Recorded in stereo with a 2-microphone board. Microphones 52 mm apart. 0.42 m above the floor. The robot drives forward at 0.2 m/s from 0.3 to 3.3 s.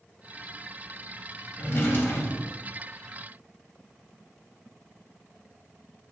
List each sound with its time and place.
1.6 s a drawer: 55° left (ahead or behind), 0.5 m; by 2.7 s 40° left (ahead or behind), 0.7 m